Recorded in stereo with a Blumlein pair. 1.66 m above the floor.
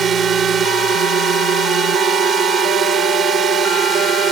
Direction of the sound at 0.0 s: 20° right.